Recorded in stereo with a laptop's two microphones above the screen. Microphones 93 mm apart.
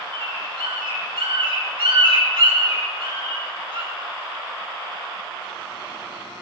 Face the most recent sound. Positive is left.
turn(degrees=-65)  # may be behind; listen again after turning